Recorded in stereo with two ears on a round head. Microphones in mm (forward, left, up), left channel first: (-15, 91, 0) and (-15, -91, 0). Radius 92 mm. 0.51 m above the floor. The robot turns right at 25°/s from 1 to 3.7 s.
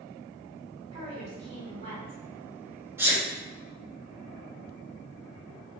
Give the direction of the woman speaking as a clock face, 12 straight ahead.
5 o'clock.